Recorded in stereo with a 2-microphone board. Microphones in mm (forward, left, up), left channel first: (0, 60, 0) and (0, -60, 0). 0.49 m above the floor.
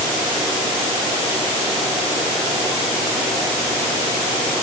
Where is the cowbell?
I don't hear a cowbell.